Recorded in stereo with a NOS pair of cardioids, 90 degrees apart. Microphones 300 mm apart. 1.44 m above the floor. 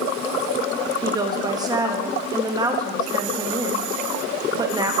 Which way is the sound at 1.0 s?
15° right.